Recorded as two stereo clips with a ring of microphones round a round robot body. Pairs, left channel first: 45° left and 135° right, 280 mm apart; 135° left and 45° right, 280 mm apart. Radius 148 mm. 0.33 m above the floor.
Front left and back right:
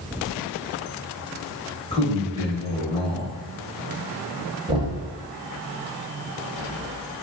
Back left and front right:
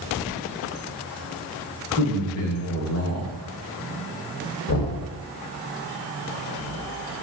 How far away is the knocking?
About 1.0 m.